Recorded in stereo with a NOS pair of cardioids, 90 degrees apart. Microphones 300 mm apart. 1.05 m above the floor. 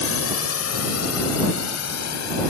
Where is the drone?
45° left; by 2.5 s 60° left.